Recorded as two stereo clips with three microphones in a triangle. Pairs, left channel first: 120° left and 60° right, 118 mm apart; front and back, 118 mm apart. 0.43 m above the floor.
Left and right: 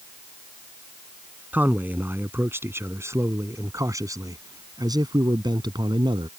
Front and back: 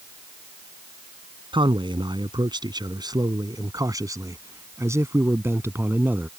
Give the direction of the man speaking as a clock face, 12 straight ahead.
5 o'clock.